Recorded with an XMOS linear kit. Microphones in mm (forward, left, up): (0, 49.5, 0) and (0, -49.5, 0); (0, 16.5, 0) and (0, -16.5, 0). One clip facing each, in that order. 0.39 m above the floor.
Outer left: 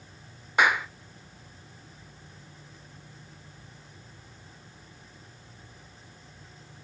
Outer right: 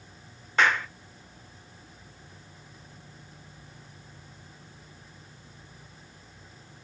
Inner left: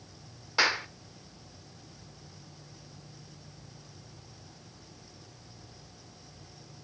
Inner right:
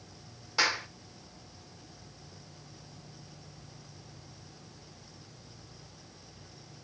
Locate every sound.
0.6 s a clap: 15° left (ahead or behind), 0.7 m